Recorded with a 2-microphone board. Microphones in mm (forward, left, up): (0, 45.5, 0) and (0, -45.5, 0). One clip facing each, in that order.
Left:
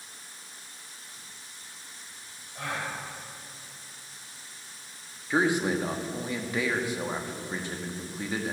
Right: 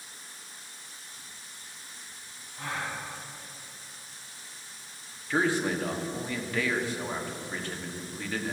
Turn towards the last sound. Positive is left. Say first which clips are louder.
# left 2 dB
turn(degrees=15)  # may be behind; listen again after turning